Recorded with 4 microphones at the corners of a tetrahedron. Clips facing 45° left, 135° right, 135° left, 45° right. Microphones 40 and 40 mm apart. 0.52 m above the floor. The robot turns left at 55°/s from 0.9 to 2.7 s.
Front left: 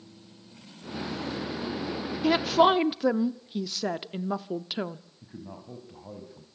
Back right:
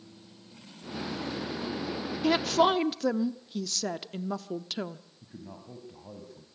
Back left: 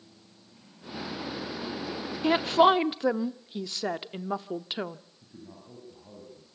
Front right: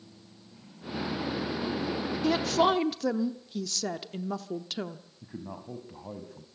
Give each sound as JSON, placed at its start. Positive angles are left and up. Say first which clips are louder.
{"t": 2.2, "sound": "a woman speaking", "louder": "front left 3 dB, back left 4 dB", "azimuth_deg": 130, "distance_m": 0.7}
{"t": 5.2, "sound": "a man speaking", "louder": "front left 2 dB, front right 7 dB", "azimuth_deg": -30, "distance_m": 3.5}